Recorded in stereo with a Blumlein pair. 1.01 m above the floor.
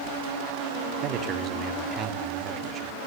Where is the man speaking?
30° right, 1.9 m.